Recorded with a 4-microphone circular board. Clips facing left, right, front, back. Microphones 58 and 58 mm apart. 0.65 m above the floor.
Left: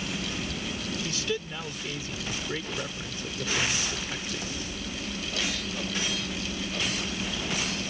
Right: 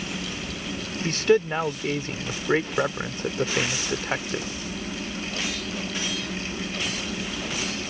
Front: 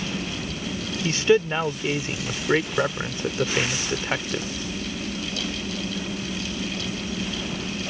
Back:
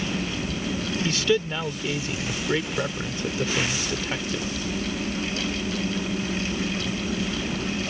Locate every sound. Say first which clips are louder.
1.0 s a man speaking: right 16 dB, front 5 dB; 55° right